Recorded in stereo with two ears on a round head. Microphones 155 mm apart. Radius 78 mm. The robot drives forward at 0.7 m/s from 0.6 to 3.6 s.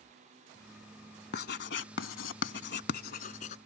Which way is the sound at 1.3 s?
60° left (ahead or behind).